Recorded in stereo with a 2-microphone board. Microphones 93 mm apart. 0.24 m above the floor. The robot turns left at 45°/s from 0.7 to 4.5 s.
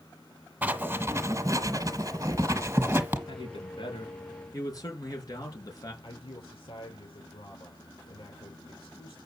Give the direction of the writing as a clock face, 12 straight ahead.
1 o'clock.